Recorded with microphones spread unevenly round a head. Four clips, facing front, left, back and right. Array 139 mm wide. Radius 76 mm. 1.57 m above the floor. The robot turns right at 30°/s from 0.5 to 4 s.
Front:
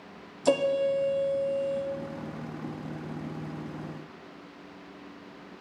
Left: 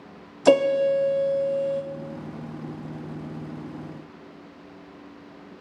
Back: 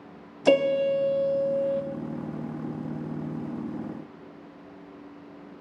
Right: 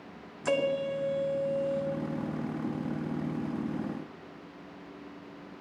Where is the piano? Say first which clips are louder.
Left 11 dB, back 3 dB; 110° left, 0.7 m; by 1.8 s 150° left, 0.7 m.